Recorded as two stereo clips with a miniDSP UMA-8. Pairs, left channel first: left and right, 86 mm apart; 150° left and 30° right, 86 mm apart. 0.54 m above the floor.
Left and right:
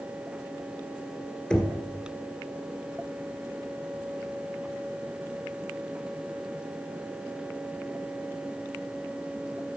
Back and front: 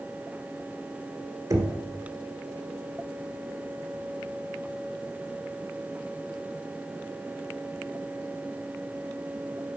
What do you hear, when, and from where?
1.5 s knocking: 15° left, 1.6 m